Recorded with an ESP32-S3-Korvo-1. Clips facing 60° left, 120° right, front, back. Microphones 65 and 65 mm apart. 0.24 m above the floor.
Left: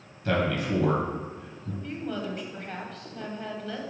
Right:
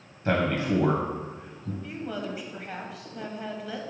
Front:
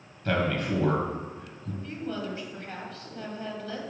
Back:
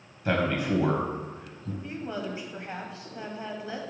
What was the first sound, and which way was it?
A man speaking, 125° right.